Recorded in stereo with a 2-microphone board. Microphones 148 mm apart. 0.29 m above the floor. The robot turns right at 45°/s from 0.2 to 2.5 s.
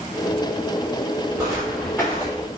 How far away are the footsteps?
About 1.0 m.